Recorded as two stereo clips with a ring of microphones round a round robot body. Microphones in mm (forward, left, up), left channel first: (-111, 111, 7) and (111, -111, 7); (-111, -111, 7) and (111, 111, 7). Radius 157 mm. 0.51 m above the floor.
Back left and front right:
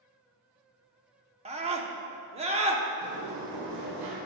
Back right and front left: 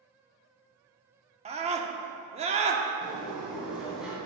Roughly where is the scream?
Ahead.